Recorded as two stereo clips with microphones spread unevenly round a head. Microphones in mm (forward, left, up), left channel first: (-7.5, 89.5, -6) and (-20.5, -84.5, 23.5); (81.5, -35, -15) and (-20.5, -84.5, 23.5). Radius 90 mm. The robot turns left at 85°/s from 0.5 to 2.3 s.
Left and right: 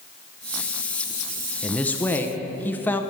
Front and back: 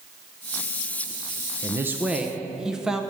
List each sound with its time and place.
1.6 s a man speaking: 130° left, 0.6 m; by 3.0 s 75° left, 0.6 m